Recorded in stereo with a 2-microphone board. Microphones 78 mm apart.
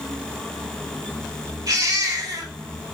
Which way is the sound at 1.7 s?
50° right (ahead or behind).